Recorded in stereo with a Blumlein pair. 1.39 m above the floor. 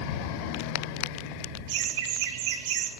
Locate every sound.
1.7 s laughter: 50° right, 1.0 m